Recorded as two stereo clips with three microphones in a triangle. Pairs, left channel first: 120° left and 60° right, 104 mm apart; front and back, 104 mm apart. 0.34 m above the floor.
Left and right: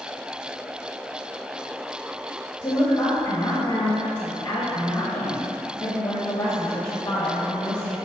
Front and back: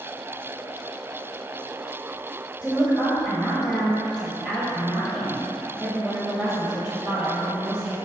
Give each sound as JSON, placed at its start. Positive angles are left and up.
{"t": 2.6, "sound": "a woman speaking", "azimuth_deg": 110, "distance_m": 1.2}